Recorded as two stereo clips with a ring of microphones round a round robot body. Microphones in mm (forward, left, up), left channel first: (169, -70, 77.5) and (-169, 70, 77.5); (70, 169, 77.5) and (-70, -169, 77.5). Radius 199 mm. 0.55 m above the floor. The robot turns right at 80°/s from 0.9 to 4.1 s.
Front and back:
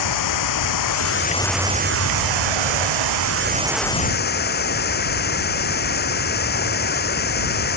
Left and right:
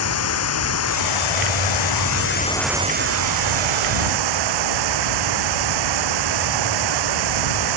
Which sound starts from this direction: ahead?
Running water, at 0.0 s.